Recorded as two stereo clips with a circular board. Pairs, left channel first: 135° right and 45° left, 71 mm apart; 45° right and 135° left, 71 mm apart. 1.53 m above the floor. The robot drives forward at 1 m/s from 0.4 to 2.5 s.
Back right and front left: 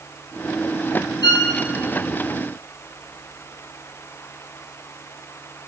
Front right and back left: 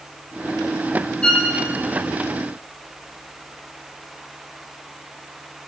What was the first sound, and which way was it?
A violin, 120° right.